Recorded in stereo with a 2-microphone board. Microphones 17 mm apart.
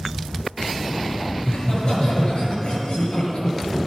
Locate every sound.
1.4 s laughter: 70° left (ahead or behind), 3.5 m